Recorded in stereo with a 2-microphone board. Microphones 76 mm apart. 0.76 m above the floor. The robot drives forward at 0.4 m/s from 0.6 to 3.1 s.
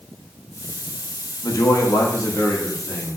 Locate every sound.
1.4 s a man speaking: 45° left (ahead or behind), 0.7 m; by 3.2 s 25° left (ahead or behind), 1.1 m